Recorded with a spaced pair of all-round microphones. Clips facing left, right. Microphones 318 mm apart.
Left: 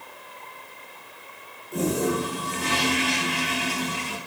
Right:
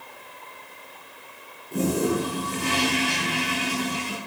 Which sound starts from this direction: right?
A toilet flushing, at 1.7 s.